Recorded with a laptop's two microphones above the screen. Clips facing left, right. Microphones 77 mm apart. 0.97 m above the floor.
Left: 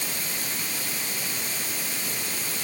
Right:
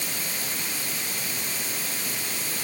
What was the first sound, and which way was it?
Only background noise.